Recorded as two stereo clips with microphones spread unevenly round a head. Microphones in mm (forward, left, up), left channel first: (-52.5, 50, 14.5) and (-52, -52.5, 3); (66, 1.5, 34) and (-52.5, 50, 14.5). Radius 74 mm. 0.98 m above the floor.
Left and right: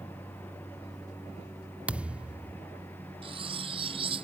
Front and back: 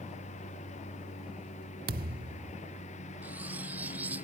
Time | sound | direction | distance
0.0 | a lawn mower | 10° left | ?
1.9 | a thud | 170° right | ?
3.2 | cutlery clinking | 125° right | ?